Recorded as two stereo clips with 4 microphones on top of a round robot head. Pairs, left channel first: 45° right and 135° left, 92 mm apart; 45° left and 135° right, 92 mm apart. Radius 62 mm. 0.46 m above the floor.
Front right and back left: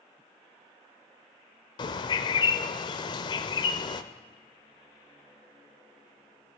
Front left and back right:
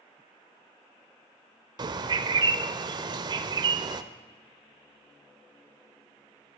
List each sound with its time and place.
1.8 s a bird: 90° right, 0.5 m